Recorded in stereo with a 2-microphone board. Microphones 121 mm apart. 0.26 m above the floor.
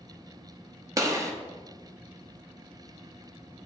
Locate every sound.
1.0 s a gunshot: 30° right (ahead or behind), 1.3 m